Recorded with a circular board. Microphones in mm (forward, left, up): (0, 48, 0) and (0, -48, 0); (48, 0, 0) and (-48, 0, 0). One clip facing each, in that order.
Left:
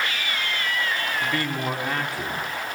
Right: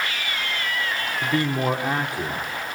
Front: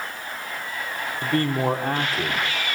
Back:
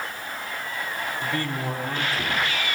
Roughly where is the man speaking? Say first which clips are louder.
Right 8 dB, front 9 dB; ahead right.